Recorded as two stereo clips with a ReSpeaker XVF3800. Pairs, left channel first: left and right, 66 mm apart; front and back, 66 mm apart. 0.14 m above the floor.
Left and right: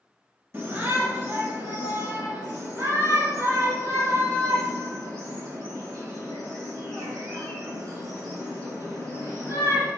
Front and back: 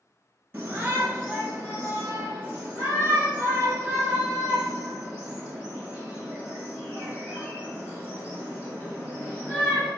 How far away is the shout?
About 1.8 m.